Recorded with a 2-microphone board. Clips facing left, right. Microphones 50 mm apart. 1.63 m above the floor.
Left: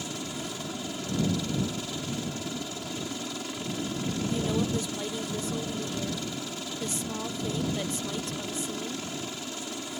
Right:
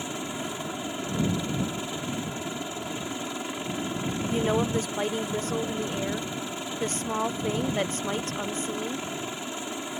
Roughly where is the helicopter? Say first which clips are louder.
Right 3 dB; right.